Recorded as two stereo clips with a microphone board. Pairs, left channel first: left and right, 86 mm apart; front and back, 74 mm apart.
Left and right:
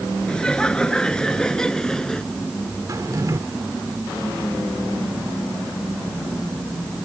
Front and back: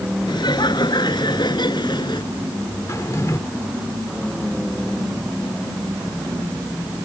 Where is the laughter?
10° left; by 2.3 s 5° left.